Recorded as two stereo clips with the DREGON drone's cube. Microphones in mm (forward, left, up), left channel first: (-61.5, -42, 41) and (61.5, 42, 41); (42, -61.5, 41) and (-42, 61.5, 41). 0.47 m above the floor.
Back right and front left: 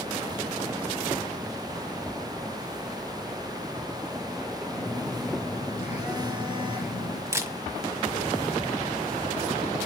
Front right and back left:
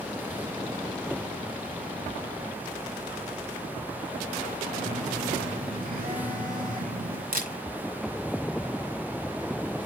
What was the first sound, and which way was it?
A phone buzzing, 115° left.